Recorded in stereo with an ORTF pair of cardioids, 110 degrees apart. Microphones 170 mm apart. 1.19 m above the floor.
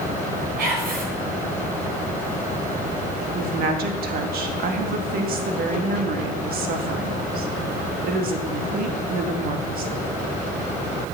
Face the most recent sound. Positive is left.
turn(degrees=-60)